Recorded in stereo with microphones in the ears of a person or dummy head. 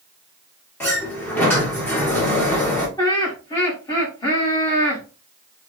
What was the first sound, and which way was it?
A sliding door, 10° left (ahead or behind).